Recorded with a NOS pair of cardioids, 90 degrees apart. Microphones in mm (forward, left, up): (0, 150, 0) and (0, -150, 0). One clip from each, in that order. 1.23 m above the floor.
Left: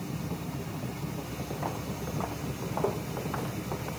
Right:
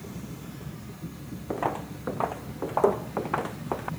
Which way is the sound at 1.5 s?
60° right.